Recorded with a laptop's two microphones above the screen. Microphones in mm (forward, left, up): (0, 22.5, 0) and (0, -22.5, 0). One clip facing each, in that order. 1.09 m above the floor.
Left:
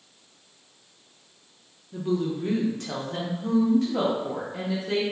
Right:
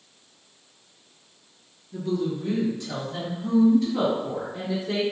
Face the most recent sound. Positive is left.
turn(degrees=70)  # may be behind; listen again after turning